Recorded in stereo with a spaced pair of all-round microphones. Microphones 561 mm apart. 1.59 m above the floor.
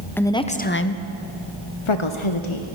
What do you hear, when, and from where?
0.2 s a woman speaking: 5° left (ahead or behind), 0.8 m; by 2.6 s 55° left (ahead or behind), 0.9 m